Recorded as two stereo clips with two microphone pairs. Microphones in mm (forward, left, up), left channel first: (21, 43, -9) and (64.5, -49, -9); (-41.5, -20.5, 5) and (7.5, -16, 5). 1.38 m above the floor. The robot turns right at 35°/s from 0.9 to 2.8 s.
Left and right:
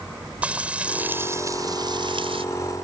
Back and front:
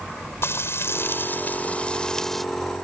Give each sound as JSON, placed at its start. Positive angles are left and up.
{"t": 0.4, "sound": "frying", "azimuth_deg": -140}